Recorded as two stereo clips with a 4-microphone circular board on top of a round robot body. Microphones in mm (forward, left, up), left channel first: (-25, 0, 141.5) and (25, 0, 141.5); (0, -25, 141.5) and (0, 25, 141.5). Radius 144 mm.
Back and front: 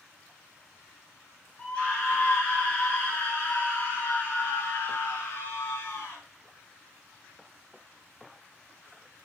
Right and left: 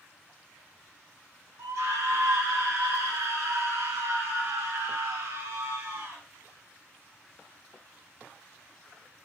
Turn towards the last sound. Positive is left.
turn(degrees=135)